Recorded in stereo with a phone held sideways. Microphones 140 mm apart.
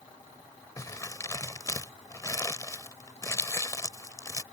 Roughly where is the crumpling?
Left.